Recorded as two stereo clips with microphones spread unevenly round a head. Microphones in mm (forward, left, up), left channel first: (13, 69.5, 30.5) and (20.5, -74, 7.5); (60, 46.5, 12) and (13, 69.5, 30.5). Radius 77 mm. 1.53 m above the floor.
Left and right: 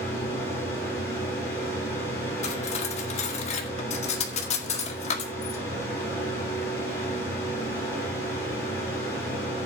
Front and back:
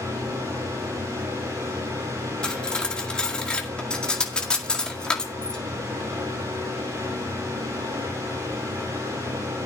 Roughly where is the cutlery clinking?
Ahead left.